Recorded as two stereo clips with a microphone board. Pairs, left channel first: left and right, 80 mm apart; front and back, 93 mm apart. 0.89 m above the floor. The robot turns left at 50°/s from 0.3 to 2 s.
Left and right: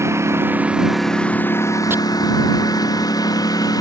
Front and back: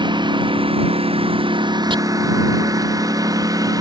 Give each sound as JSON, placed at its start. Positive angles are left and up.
{"t": 0.0, "sound": "a lawn mower", "azimuth_deg": -145}
{"t": 1.9, "sound": "chopping", "azimuth_deg": -150}